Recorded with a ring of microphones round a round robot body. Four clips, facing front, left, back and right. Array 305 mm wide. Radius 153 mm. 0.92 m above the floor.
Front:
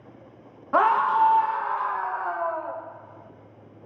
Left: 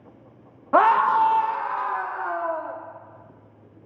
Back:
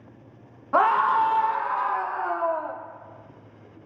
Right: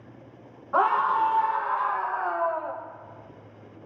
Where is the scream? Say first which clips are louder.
Left 5 dB, even; 80° left, 0.9 m; by 2.8 s 155° left, 2 m.